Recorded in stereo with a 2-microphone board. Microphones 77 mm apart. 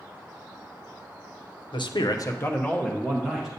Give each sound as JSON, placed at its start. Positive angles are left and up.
{"t": 1.7, "sound": "a man speaking", "side_deg": 85, "distance_m": 0.7}